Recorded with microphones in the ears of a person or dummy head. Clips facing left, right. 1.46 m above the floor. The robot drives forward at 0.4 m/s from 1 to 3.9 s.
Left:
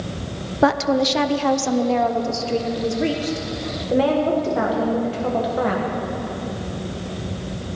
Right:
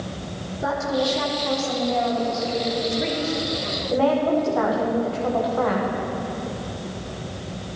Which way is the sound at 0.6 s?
75° left (ahead or behind).